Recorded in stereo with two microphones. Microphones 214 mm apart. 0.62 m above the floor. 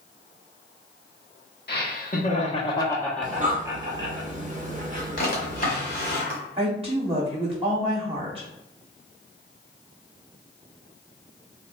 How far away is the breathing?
About 0.8 m.